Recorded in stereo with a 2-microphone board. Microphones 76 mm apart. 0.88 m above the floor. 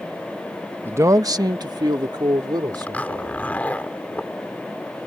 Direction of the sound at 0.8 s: 25° right (ahead or behind).